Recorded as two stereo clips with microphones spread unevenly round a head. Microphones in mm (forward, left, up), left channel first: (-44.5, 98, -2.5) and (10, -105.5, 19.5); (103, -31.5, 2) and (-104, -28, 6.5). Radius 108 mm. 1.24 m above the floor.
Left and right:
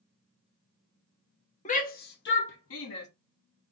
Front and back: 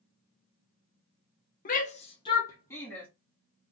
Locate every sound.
1.6 s a shout: 50° left, 0.8 m; by 3.1 s 85° left, 1.3 m